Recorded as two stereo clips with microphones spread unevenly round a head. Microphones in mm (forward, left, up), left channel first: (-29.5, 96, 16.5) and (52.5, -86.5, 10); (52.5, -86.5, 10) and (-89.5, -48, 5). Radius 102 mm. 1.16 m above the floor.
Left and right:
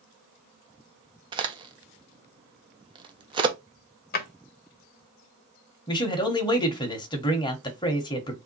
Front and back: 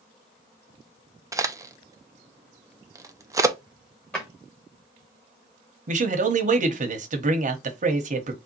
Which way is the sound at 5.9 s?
Straight behind.